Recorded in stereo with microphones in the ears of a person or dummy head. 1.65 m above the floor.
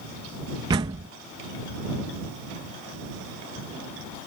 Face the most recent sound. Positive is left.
turn(degrees=-25)  # may be behind; listen again after turning